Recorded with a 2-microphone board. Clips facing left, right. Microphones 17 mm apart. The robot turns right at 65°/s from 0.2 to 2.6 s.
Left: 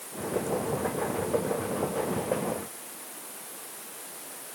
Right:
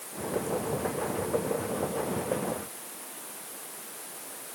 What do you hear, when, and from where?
Only background noise.